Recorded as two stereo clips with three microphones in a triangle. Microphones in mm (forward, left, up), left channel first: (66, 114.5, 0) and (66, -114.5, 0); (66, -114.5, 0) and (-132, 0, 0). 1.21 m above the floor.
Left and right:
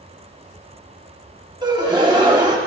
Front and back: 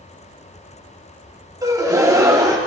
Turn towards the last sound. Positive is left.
turn(degrees=-145)